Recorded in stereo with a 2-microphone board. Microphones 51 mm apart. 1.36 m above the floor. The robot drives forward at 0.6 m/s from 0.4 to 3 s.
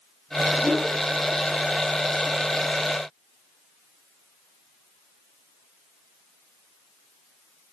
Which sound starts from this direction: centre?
A whoosh, at 0.6 s.